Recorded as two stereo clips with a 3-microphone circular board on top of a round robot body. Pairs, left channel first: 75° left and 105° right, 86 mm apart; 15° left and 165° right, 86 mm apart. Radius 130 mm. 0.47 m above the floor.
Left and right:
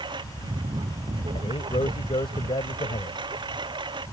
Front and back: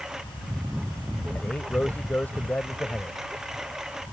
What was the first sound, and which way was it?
A lawn mower, 80° right.